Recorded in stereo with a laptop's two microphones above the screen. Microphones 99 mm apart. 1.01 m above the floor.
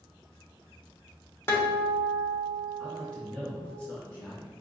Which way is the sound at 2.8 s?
15° left (ahead or behind).